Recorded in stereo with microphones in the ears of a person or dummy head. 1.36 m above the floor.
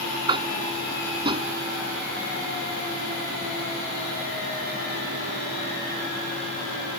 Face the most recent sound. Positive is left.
turn(degrees=-35)  # may be behind; listen again after turning